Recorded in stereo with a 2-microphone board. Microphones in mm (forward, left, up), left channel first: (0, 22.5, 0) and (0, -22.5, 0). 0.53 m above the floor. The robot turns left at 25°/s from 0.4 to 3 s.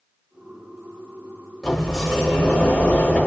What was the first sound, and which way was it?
A sliding door, 175° right.